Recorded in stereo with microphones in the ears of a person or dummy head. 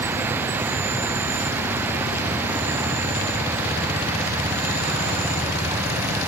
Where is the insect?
15° right (ahead or behind), 0.8 m.